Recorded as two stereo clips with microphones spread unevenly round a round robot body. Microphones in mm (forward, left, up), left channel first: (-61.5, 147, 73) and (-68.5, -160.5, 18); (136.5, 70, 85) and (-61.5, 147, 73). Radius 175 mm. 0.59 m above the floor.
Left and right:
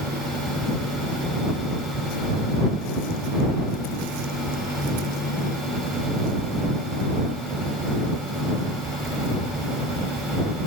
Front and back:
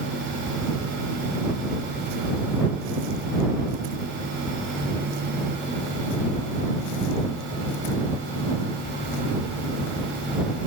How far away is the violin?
No violin in this recording.